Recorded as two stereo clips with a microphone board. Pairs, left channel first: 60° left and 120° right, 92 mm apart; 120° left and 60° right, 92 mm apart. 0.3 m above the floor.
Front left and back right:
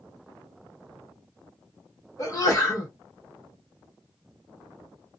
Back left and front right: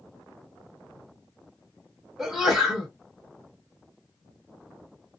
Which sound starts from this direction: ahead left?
A sneeze, at 2.2 s.